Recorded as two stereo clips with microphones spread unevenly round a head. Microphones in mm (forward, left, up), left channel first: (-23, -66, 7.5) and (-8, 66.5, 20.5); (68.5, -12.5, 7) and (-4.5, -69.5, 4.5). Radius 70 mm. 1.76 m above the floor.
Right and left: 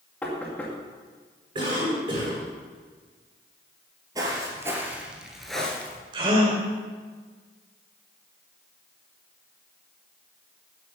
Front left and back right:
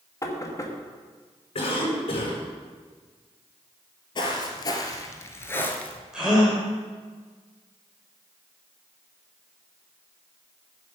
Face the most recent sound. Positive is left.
turn(degrees=130)